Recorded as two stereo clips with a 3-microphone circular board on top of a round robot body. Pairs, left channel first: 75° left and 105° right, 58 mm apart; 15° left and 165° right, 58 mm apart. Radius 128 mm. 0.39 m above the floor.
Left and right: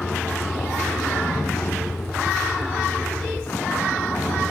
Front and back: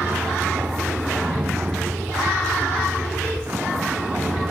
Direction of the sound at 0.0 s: 135° left.